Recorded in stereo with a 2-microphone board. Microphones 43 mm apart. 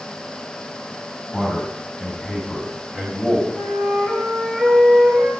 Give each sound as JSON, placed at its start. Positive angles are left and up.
{"t": 1.3, "sound": "a man speaking", "side_deg": -10, "distance_m": 4.5}
{"t": 3.5, "sound": "a flute", "side_deg": -10, "distance_m": 5.5}